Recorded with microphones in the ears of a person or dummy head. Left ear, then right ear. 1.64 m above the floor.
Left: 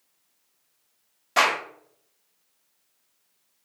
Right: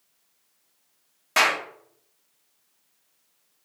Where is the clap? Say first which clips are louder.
Even; 25° right (ahead or behind), 1.1 m.